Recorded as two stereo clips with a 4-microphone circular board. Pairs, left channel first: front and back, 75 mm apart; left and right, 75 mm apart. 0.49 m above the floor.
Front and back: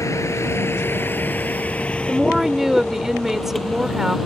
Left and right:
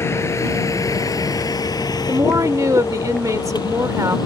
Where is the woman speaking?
100° right.